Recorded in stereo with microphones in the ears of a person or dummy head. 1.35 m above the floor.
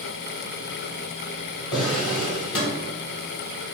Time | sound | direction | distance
1.7 | a drawer | 25° left (ahead or behind) | 2 m